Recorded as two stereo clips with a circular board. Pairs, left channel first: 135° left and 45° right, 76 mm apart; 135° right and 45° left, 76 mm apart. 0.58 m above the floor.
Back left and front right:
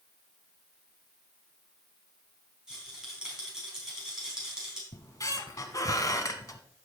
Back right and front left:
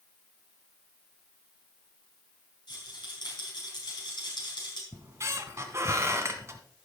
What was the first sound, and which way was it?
A rattle, 130° right.